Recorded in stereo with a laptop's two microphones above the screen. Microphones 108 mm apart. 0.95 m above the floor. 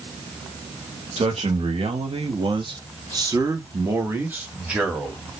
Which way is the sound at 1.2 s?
75° right (ahead or behind).